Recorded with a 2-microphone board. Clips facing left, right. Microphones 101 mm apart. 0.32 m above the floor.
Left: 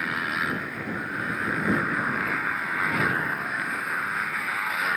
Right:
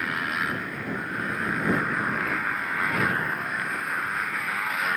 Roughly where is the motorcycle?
Centre.